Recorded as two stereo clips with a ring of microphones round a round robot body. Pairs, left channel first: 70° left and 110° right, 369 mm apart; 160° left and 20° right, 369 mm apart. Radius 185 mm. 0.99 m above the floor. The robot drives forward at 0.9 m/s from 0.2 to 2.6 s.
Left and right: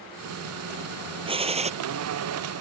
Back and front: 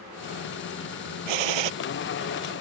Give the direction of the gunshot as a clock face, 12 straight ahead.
1 o'clock.